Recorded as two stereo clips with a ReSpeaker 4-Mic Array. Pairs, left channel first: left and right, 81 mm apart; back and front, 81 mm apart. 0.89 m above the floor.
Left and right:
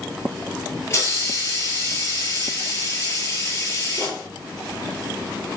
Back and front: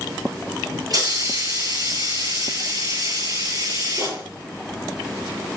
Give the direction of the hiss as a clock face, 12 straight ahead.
11 o'clock.